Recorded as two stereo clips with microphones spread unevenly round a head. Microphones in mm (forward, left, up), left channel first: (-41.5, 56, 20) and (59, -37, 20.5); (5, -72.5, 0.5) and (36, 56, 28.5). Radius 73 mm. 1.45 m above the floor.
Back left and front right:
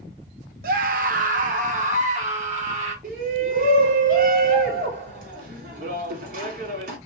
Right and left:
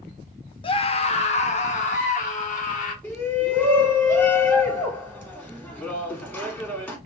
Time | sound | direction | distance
0.6 | a scream | 60° right | 0.9 m
3.0 | a shout | 25° right | 3.5 m